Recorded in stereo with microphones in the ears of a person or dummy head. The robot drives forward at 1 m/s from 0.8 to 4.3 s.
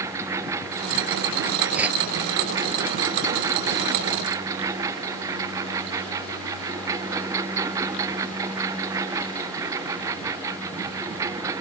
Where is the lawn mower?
15° right (ahead or behind).